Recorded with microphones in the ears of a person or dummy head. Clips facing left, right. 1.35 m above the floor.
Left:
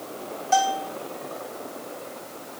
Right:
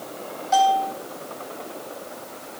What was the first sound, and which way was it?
A bell, 45° left (ahead or behind).